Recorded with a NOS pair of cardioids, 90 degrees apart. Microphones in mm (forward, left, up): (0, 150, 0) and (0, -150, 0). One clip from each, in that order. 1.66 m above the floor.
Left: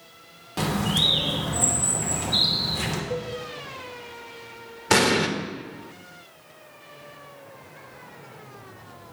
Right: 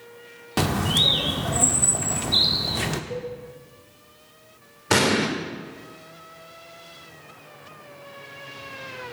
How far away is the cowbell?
About 2.5 m.